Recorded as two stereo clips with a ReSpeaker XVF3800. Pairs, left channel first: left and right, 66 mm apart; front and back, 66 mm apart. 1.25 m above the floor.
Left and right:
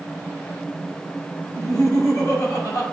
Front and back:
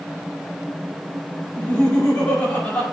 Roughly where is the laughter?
Left.